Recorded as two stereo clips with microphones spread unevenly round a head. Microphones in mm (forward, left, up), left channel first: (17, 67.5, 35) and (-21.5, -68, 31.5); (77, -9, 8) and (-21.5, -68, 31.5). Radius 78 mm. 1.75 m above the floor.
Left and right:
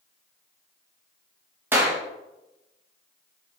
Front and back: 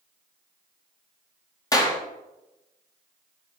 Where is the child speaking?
No child speaking in this recording.